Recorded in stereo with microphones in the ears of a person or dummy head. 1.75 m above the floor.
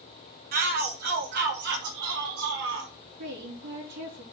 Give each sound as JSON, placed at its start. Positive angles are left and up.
{"t": 0.5, "sound": "a shout", "side_deg": -50, "distance_m": 2.0}
{"t": 3.2, "sound": "a woman speaking", "side_deg": -60, "distance_m": 3.5}